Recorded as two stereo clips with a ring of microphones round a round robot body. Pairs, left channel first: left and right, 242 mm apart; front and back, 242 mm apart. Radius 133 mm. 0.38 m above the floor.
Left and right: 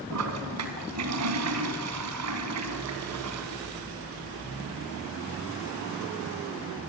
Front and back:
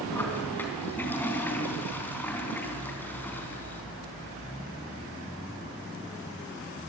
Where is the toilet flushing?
85° right, 3.5 m.